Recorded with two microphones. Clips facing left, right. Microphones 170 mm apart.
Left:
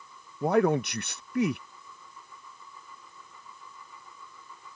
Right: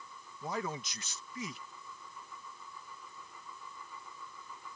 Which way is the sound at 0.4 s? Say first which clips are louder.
Left 15 dB; 65° left (ahead or behind).